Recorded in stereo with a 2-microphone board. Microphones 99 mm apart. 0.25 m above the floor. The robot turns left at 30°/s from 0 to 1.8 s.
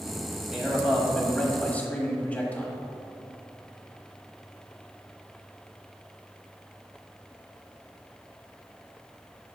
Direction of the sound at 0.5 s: 170° right.